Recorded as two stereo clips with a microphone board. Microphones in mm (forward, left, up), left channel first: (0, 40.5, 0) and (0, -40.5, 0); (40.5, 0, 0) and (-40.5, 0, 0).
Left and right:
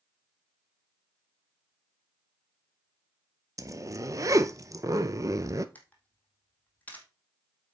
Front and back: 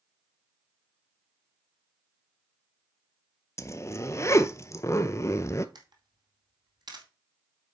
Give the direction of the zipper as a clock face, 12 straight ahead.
2 o'clock.